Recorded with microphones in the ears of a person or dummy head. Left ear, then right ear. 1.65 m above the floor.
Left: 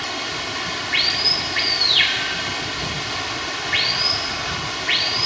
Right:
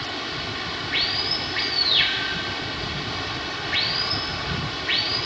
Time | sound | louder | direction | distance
0.0 | running water | left 3 dB | 25° left (ahead or behind) | ?